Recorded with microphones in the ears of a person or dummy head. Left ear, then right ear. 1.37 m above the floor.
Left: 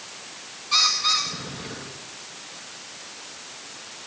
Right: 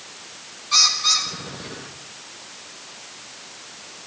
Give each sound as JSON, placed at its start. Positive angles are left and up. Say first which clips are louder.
{"t": 0.7, "sound": "a bird", "louder": "right 3 dB", "side_deg": -10, "distance_m": 1.8}